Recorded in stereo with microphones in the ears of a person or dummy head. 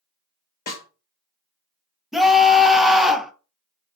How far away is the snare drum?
About 0.7 m.